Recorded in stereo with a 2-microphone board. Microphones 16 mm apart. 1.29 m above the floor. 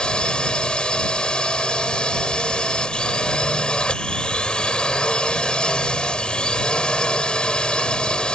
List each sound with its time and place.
0.0 s a drone: 70° left (ahead or behind)